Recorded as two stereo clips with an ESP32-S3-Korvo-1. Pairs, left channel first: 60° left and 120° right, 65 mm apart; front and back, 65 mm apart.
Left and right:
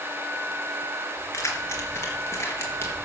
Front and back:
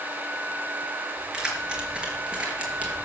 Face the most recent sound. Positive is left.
turn(degrees=110)